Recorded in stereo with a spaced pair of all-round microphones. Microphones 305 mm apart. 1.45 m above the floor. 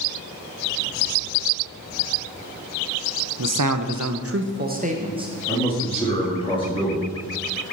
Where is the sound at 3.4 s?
75° right (ahead or behind), 0.6 m; by 5.3 s 15° right (ahead or behind), 1.1 m.